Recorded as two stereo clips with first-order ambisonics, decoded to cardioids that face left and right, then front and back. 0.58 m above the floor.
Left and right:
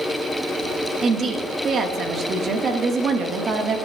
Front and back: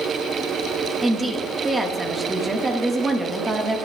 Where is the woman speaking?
120° right, 1.1 m.